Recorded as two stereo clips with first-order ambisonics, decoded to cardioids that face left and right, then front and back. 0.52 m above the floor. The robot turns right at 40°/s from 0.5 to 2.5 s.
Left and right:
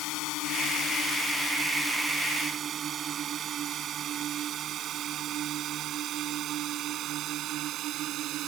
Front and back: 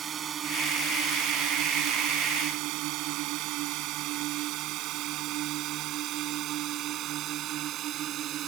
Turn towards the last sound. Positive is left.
turn(degrees=-130)